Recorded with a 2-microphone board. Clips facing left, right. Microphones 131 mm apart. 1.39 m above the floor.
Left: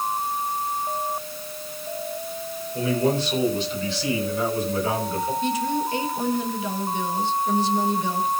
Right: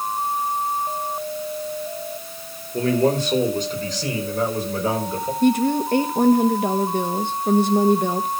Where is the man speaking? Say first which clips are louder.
Right 4 dB; 55° right (ahead or behind), 4.5 m; by 5.3 s 35° right (ahead or behind), 6 m.